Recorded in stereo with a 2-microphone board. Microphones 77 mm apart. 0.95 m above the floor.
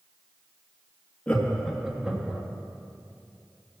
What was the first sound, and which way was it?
Laughter, 15° left (ahead or behind).